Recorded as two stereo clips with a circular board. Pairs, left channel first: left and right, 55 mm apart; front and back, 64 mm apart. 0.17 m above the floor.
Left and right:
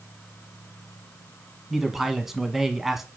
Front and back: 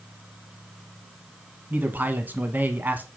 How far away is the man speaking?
About 1.3 m.